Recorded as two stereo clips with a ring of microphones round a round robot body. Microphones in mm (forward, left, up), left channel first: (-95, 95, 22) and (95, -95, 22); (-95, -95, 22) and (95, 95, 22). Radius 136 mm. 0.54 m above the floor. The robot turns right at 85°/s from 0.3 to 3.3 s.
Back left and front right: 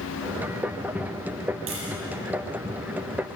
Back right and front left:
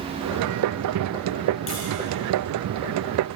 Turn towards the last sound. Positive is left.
turn(degrees=50)